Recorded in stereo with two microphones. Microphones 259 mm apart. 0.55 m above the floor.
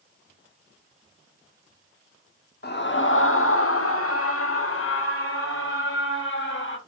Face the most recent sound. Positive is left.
turn(degrees=50)  # may be behind; listen again after turning